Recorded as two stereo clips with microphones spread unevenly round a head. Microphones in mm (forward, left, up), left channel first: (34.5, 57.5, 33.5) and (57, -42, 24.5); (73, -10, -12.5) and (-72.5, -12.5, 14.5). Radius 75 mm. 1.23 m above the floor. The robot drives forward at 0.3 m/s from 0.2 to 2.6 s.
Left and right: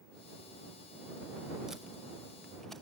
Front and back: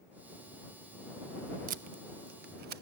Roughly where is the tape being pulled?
Behind.